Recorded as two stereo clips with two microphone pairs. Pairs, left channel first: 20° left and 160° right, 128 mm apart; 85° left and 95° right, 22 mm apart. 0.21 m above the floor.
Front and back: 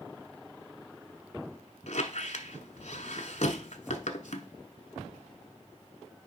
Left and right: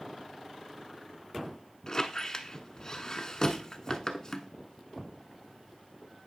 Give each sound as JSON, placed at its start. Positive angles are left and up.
{"t": 1.9, "sound": "a squeak", "azimuth_deg": 30, "distance_m": 0.9}